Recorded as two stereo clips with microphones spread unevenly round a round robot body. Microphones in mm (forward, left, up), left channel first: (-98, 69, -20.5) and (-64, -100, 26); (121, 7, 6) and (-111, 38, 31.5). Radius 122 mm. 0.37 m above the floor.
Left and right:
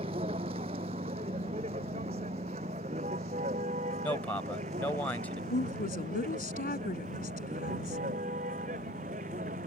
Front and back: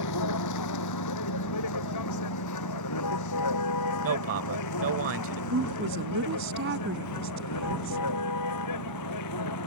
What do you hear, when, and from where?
0.0 s a vehicle: 10° right; by 9.7 s 20° right
4.0 s a man speaking: 165° left
5.5 s a woman speaking: 135° left